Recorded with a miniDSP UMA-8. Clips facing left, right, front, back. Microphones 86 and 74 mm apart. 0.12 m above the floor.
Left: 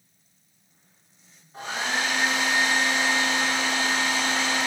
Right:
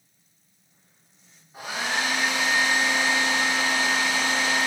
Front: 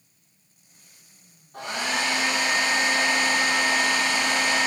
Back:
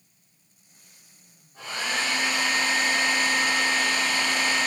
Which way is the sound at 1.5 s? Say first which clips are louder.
Even, front 2 dB; 5° right.